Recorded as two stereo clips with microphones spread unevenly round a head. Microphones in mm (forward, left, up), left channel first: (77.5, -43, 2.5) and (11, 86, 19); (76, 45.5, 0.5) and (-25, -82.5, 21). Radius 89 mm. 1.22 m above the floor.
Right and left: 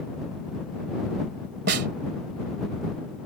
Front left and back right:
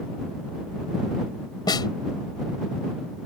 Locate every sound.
1.7 s a snare drum: 125° left